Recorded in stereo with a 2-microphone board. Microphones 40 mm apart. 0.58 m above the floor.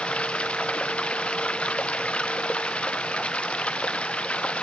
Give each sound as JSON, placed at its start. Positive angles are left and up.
{"t": 0.0, "sound": "running water", "side_deg": 35}